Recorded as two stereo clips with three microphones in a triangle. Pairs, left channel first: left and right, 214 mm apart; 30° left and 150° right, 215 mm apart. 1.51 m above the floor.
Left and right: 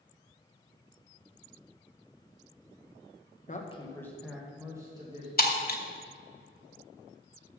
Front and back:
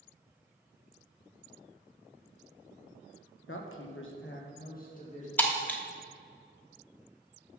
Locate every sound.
3.5 s a woman speaking: 40° left, 1.1 m; by 5.3 s 25° right, 2.5 m
5.4 s breaking glass: 110° left, 1.0 m